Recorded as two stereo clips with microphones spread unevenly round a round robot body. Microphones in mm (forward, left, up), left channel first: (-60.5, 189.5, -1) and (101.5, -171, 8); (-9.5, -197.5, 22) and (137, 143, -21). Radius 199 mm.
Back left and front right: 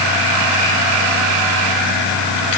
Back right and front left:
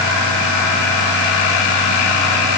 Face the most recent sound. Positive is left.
No sound to turn to.